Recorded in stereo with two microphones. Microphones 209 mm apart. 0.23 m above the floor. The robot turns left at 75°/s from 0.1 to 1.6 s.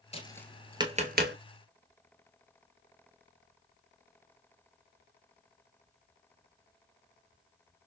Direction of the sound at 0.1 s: 30° left (ahead or behind).